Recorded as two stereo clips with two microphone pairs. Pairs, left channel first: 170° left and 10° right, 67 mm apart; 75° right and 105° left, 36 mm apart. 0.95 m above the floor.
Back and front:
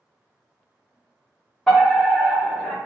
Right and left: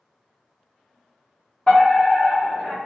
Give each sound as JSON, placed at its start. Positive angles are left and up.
{"t": 1.7, "sound": "a fire alarm", "azimuth_deg": -105, "distance_m": 1.2}